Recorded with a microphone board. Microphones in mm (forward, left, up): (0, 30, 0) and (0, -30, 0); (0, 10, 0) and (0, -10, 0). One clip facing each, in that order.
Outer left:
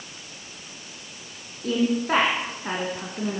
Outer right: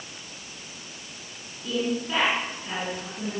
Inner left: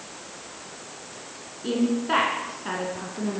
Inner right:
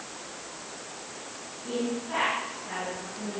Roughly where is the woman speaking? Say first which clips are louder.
Outer left 5 dB, inner left 7 dB; left.